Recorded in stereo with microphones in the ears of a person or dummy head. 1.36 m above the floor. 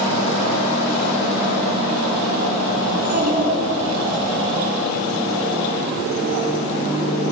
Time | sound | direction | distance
2.9 | a child speaking | 50° right (ahead or behind) | 7.5 m